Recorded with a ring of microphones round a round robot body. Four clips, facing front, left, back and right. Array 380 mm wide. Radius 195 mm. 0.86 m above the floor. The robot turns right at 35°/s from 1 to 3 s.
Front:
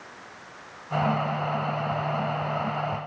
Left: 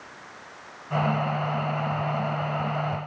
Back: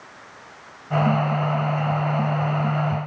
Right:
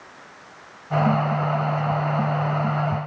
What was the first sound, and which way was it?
Only background noise.